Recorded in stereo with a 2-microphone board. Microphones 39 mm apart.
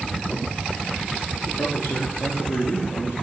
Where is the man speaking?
80° left, 6 m.